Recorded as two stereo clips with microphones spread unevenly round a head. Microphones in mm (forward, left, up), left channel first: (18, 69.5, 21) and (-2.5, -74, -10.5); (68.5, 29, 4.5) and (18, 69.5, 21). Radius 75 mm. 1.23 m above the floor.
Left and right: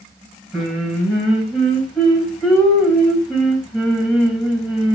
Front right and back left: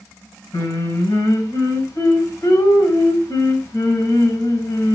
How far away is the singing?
About 4.5 m.